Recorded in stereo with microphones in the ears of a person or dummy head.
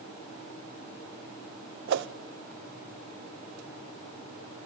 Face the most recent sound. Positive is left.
turn(degrees=-55)  # may be behind; listen again after turning